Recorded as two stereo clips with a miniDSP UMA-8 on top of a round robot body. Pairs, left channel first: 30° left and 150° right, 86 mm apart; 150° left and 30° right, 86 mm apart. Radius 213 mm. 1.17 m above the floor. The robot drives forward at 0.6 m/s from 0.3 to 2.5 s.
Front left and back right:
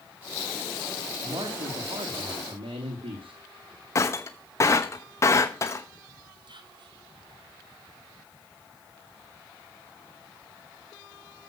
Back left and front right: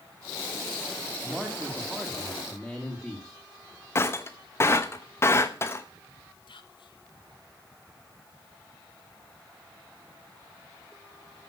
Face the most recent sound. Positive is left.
turn(degrees=180)